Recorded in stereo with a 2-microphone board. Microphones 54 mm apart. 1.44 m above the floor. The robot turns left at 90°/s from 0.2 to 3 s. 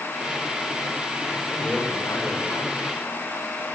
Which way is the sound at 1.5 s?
170° right.